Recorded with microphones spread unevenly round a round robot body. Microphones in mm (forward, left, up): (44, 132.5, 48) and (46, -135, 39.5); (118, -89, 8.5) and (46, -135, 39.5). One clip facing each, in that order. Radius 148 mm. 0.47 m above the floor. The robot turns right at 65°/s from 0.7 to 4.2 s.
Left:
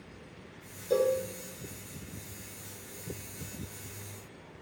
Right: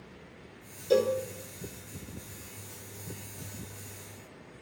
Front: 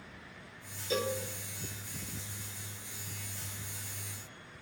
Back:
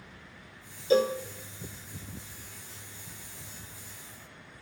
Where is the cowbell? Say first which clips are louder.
Right 2 dB, back 10 dB; 85° right, 0.6 m; by 1.2 s 65° right, 0.6 m.